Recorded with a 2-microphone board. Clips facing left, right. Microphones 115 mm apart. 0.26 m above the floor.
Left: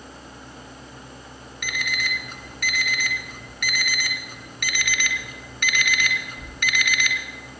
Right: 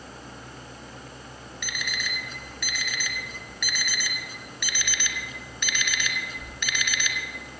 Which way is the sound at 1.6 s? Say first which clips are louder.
Left 5 dB; 55° left (ahead or behind).